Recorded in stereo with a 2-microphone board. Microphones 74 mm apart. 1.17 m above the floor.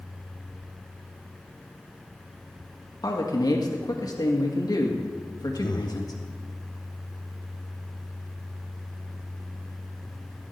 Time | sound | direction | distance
3.0 | a man speaking | 60° left (ahead or behind) | 1.9 m
5.6 | breathing | 80° left | 0.7 m